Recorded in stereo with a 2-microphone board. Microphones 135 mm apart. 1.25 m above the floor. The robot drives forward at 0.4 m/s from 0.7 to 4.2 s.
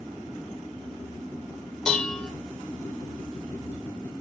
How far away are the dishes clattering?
About 0.9 m.